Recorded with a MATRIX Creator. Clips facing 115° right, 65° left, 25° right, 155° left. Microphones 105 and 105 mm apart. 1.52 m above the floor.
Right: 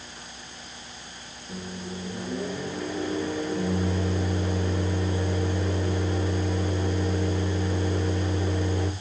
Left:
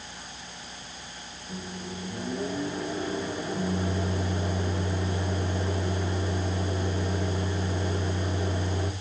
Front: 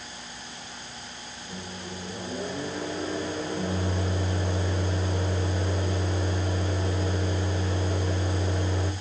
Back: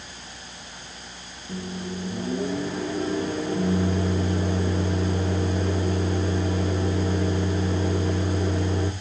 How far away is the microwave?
About 1.9 m.